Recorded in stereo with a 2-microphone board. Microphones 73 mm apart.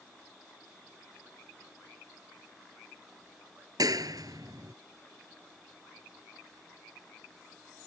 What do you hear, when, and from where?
3.8 s a clap: 60° right (ahead or behind)